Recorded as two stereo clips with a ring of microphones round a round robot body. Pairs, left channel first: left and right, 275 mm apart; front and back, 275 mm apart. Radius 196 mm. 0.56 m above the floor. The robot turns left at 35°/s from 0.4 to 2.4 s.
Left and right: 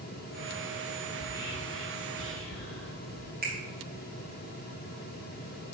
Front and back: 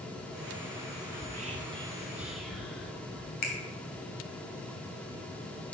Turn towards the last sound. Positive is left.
turn(degrees=-25)